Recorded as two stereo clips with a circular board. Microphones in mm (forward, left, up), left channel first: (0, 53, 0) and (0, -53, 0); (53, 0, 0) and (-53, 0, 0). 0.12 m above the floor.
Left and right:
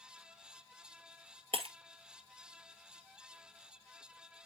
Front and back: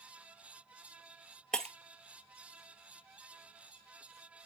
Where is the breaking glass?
85° right, 1.3 m.